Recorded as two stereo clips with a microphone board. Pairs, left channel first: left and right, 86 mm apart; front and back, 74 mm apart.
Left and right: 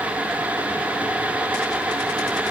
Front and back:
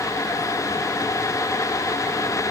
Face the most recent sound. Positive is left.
No sound to turn to.